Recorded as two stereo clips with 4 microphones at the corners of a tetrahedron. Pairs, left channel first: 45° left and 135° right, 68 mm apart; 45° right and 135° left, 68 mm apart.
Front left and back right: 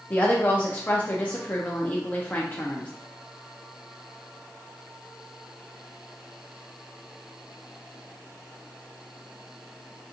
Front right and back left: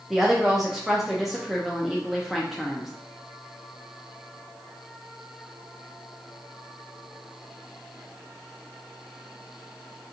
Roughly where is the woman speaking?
Ahead left.